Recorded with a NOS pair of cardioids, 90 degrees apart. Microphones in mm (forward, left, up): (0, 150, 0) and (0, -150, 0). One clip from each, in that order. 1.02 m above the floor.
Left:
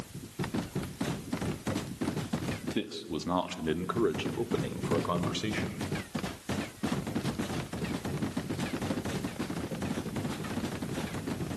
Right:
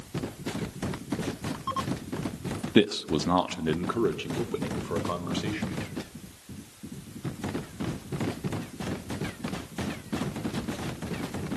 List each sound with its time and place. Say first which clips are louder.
2.8 s a man speaking: right 17 dB; 70° right, 1.2 m; by 5.8 s 15° left, 4.5 m